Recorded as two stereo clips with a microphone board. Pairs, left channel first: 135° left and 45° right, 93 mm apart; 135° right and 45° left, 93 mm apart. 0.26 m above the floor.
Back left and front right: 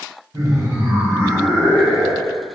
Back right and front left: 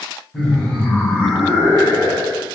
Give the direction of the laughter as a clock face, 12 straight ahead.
2 o'clock.